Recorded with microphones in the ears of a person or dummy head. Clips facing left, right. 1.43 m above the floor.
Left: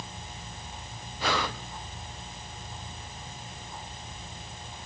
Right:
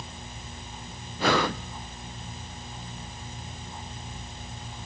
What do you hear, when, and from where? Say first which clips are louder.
1.2 s breathing: right 6 dB; 30° right (ahead or behind), 0.5 m